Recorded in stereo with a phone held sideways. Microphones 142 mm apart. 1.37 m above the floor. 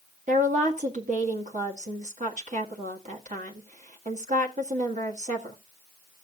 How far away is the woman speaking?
About 1.8 m.